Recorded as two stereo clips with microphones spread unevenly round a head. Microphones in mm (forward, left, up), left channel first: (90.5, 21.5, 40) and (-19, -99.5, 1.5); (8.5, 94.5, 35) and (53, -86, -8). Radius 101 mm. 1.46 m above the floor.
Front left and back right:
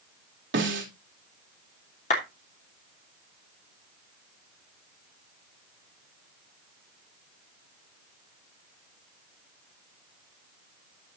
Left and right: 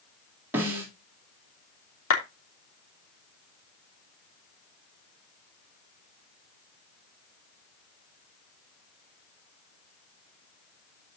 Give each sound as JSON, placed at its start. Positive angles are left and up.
{"t": 0.5, "sound": "a snare drum", "azimuth_deg": -160, "distance_m": 3.5}
{"t": 2.1, "sound": "a clap", "azimuth_deg": 105, "distance_m": 3.0}